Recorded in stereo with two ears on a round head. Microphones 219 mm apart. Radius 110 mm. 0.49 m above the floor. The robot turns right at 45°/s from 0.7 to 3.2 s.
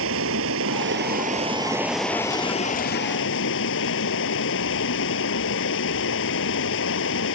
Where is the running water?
60° right; by 7.4 s 55° left.